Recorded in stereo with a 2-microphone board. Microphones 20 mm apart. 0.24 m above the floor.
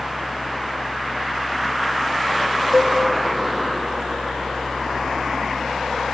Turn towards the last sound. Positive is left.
turn(degrees=-20)  # may be behind; listen again after turning